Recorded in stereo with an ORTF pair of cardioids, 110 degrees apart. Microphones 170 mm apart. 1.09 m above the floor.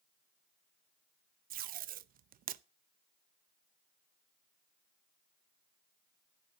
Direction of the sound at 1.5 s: 55° right.